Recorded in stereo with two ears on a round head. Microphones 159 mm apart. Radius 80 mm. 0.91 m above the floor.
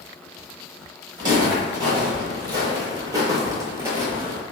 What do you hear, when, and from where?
1.2 s footsteps: 25° right (ahead or behind), 1.5 m; by 4.4 s 10° right (ahead or behind), 1.0 m